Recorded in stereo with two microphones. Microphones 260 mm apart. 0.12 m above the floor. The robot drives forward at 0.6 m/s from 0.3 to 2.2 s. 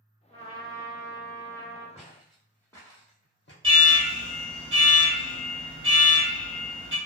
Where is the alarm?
20° right (ahead or behind), 1.6 m.